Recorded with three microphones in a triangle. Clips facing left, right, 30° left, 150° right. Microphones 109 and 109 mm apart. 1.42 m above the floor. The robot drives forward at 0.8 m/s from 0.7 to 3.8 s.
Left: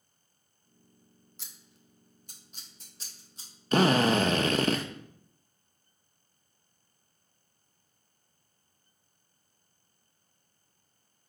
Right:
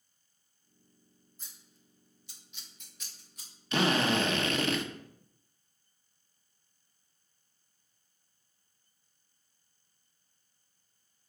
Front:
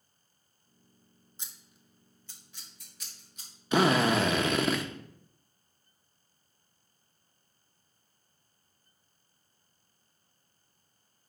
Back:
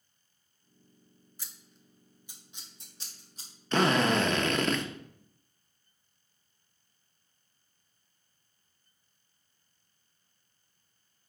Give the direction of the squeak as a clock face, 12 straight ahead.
I don't hear a squeak.